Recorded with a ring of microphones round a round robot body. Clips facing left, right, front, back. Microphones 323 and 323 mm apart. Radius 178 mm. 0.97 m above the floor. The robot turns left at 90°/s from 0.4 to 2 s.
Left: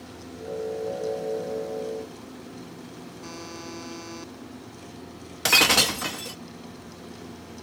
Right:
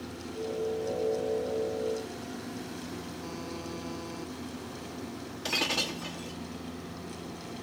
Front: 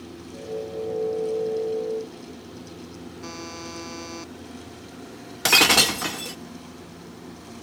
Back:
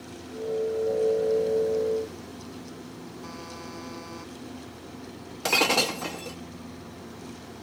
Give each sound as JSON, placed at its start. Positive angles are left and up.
{"t": 3.2, "sound": "a buzzer", "azimuth_deg": 30}
{"t": 5.5, "sound": "breaking glass", "azimuth_deg": 60}